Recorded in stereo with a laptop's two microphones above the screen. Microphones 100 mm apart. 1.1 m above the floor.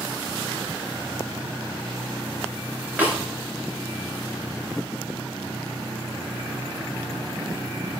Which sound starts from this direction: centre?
A snare drum, at 3.0 s.